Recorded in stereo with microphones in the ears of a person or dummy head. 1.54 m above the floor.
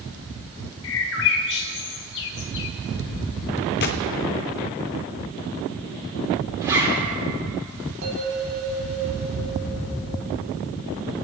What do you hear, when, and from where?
0.8 s a bird: 60° left (ahead or behind), 1.0 m
3.8 s a gunshot: 50° left (ahead or behind), 0.8 m
6.6 s a zipper: 20° right (ahead or behind), 2.5 m
8.0 s a bell: 70° right (ahead or behind), 3.5 m